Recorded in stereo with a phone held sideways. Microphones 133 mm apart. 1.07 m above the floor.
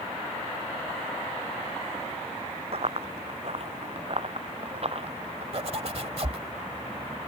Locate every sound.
2.7 s running footsteps: 50° right (ahead or behind)
5.5 s a zipper: 50° right (ahead or behind)